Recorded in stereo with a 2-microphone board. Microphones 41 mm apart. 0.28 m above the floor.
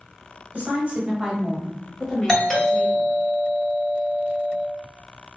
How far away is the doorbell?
About 1.9 m.